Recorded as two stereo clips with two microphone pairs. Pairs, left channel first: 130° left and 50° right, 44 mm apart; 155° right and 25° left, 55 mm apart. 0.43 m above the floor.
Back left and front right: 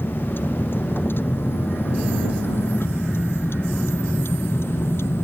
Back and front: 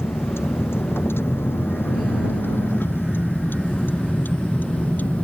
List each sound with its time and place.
0.0 s a vehicle: 165° left; by 5.2 s 145° left